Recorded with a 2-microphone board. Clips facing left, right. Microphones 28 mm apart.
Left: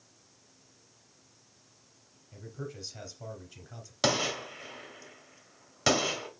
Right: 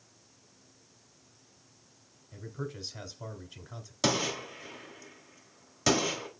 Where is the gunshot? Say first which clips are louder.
Left 1 dB; 20° left (ahead or behind), 1.2 m.